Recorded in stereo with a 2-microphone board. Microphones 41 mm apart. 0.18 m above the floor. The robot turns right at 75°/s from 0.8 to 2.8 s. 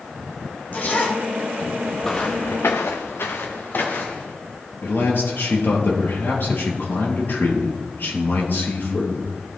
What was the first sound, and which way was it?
A zipper, 45° left.